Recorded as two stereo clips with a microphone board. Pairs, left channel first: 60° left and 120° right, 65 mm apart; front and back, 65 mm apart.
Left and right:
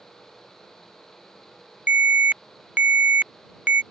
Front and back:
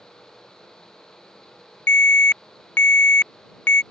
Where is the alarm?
55° right.